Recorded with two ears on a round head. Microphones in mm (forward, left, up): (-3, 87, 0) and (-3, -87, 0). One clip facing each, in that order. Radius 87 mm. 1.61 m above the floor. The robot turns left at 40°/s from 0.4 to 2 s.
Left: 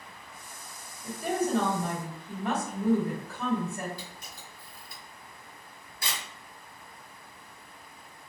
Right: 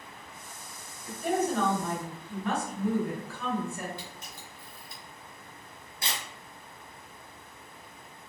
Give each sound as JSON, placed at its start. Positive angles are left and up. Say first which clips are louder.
{"t": 1.0, "sound": "a woman speaking", "louder": "right 1 dB", "azimuth_deg": 75, "distance_m": 1.6}
{"t": 4.0, "sound": "a camera shutter", "louder": "right 1 dB", "side_deg": -20, "distance_m": 1.4}